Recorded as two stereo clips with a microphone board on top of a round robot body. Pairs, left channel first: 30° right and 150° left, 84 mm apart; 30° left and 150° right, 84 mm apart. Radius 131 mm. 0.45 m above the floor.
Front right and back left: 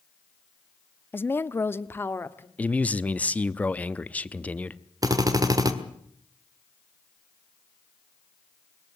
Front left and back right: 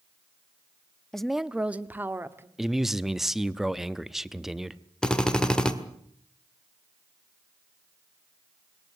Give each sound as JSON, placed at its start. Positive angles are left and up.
{"t": 1.1, "sound": "a woman speaking", "azimuth_deg": -45, "distance_m": 0.8}
{"t": 2.6, "sound": "a man speaking", "azimuth_deg": -70, "distance_m": 1.0}
{"t": 5.0, "sound": "a drill", "azimuth_deg": 110, "distance_m": 2.0}